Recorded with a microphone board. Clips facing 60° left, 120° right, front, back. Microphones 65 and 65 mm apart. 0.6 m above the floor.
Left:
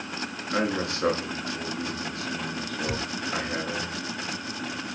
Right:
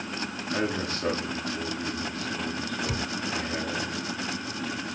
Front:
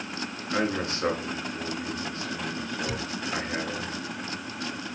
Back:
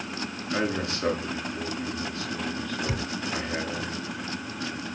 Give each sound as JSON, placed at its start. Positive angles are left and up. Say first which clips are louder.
{"t": 0.5, "sound": "a man speaking", "louder": "left 3 dB, front 1 dB", "azimuth_deg": 55, "distance_m": 8.0}
{"t": 2.9, "sound": "a thud", "louder": "left 1 dB, back 1 dB", "azimuth_deg": 120, "distance_m": 2.5}